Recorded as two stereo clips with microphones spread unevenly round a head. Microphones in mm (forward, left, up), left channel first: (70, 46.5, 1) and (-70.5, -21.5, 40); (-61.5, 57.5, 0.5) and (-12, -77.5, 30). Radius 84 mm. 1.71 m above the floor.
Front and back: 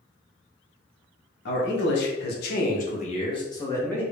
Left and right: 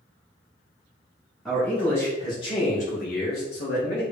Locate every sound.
1.4 s a man speaking: 20° left, 1.0 m; by 4.0 s 105° left, 0.9 m